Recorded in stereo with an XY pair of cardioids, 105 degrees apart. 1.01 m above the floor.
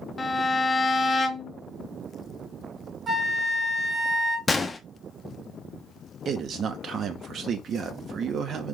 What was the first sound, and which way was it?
A violin, 30° left.